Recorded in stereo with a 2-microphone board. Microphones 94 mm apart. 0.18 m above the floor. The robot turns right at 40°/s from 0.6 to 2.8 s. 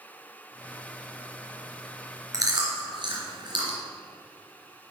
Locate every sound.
2.3 s chewing: 35° right (ahead or behind), 3 m; by 3.8 s 50° right (ahead or behind), 3 m